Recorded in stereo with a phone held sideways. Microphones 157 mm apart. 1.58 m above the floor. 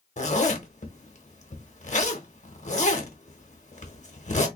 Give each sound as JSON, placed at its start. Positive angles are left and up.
{"t": 0.2, "sound": "a zipper", "side_deg": 50, "distance_m": 1.0}